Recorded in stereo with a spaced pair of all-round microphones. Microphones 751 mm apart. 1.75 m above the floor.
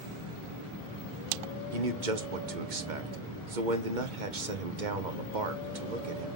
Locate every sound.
1.7 s a man speaking: 80° right, 1.3 m